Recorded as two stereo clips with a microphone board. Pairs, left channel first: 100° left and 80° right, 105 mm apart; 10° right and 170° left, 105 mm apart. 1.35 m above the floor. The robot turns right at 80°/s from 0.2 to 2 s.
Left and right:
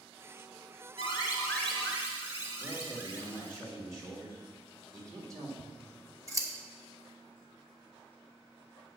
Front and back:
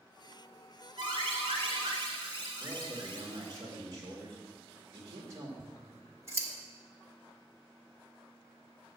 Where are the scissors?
130° right, 1.3 m.